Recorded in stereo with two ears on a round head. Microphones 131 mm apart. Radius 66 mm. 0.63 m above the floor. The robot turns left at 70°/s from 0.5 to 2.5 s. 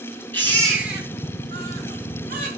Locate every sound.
0.3 s a baby crying: 15° left (ahead or behind), 5 m; by 2.5 s 55° right (ahead or behind), 5 m